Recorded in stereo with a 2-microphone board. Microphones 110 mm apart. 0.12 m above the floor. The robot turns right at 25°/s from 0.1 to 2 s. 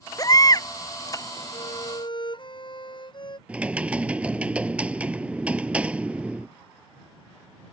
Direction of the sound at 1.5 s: 55° left (ahead or behind).